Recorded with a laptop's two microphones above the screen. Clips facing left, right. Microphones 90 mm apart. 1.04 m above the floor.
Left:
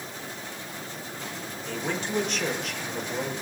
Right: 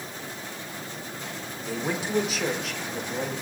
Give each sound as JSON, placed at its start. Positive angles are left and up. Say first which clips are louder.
{"t": 1.7, "sound": "a man speaking", "louder": "right 2 dB", "side_deg": -10, "distance_m": 3.5}